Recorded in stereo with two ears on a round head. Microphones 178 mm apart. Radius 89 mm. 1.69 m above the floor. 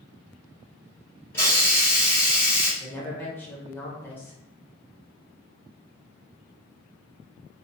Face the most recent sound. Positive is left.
turn(degrees=10)  # may be behind; listen again after turning